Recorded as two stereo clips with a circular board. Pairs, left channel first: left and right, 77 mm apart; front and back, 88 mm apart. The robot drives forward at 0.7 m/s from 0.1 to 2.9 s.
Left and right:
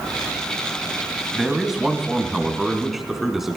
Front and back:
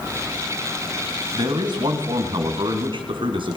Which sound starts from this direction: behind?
A man speaking, at 1.3 s.